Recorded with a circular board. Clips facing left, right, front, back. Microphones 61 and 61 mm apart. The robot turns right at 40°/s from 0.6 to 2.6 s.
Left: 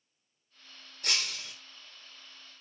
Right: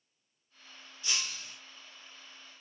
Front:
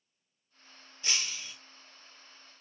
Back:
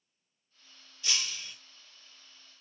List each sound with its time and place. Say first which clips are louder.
1.0 s breaking glass: left 3 dB, even; 60° left, 1.4 m; by 1.6 s 80° left, 1.4 m